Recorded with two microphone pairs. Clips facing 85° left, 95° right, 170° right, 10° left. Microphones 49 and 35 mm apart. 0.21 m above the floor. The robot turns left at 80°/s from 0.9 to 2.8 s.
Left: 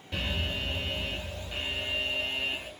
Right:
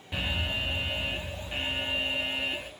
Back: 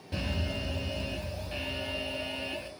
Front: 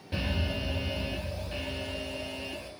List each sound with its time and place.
0.1 s an alarm: 40° right, 0.8 m; by 2.7 s 175° left, 0.8 m